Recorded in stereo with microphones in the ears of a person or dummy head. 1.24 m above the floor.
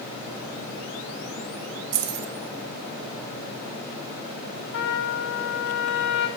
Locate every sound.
1.9 s keys jangling: 60° right (ahead or behind), 1.0 m
4.7 s a trumpet: 65° left (ahead or behind), 1.0 m